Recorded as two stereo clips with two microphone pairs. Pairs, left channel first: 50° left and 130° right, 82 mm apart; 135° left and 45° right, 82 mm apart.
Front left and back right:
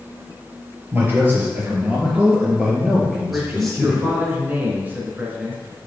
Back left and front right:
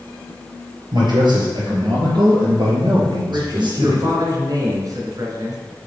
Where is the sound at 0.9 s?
70° right, 4 m; by 4.1 s 35° right, 3.5 m.